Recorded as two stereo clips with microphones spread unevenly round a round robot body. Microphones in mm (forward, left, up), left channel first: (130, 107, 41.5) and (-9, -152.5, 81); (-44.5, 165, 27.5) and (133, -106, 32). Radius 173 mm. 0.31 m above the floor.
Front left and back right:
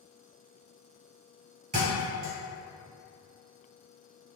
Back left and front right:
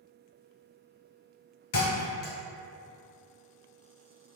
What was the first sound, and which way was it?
A thud, 175° left.